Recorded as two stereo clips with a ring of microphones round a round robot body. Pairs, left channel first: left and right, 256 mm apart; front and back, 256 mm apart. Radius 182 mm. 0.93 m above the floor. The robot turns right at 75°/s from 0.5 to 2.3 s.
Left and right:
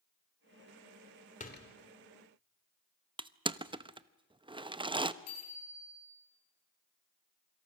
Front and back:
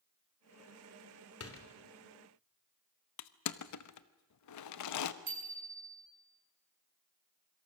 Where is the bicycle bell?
140° left, 7 m.